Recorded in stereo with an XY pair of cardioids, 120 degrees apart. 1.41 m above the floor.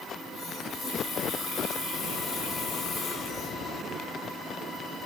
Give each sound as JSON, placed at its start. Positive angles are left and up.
{"t": 0.1, "sound": "a running tap", "azimuth_deg": 60, "distance_m": 3.5}